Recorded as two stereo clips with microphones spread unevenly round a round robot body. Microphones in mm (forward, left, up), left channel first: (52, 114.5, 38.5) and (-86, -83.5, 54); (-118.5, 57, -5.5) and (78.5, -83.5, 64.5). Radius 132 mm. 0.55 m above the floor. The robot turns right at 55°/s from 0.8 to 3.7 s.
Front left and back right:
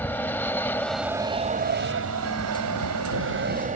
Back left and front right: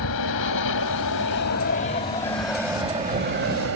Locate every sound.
0.0 s an aircraft: 135° left; by 3.8 s 65° right